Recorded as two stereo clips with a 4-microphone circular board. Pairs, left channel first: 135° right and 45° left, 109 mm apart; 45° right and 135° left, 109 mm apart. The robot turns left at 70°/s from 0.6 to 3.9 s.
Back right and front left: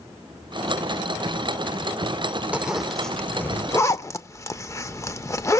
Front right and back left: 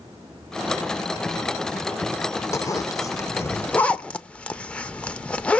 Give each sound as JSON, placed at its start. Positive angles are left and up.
{"t": 2.5, "sound": "a zipper", "azimuth_deg": -20, "distance_m": 0.5}